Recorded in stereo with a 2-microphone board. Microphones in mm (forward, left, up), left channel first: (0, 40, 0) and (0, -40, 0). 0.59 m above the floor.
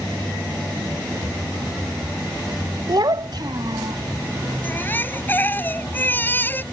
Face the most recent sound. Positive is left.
turn(degrees=25)  # may be behind; listen again after turning